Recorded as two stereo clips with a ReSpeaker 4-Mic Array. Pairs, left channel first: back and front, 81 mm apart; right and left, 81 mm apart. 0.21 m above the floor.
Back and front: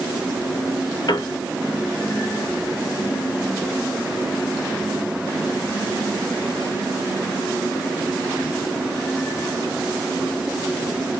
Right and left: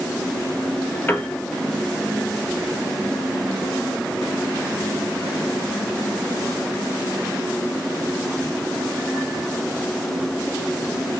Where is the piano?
155° right, 0.5 m.